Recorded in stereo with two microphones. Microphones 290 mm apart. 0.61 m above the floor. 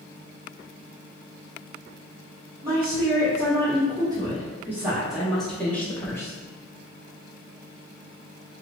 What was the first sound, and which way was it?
A woman speaking, 15° right (ahead or behind).